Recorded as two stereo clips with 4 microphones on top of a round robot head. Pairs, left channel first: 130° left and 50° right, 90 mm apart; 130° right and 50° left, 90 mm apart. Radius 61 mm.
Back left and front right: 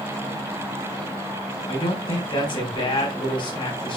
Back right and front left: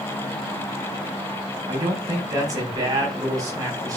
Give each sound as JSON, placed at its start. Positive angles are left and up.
{"t": 1.7, "sound": "a man speaking", "azimuth_deg": 100, "distance_m": 4.0}